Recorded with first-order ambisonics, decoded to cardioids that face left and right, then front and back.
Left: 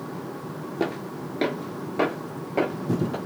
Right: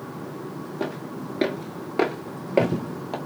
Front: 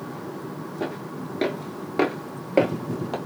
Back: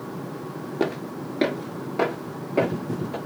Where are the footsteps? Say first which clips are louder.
Left 3 dB, back 5 dB; 160° left, 0.7 m; by 3.2 s 35° right, 1.1 m.